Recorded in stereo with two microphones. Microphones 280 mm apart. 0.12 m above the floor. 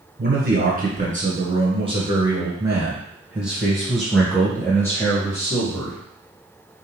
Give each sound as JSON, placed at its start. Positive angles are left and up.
{"t": 0.2, "sound": "a man speaking", "side_deg": -35, "distance_m": 1.9}